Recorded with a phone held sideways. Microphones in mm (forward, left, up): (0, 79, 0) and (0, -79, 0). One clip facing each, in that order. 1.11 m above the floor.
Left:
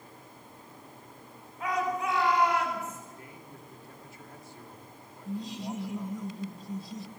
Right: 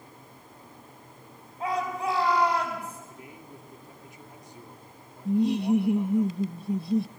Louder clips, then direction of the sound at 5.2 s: Right 13 dB; 75° right (ahead or behind).